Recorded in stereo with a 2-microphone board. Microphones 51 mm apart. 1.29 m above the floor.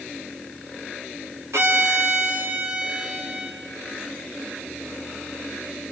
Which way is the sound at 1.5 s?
80° right.